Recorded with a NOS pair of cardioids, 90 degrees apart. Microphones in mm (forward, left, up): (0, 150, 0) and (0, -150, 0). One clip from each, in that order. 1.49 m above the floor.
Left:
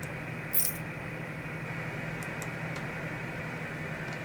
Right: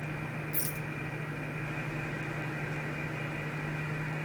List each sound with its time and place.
0.5 s a rattle: 30° left